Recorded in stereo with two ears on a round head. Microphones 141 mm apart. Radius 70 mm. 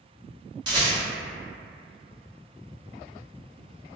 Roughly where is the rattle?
Right.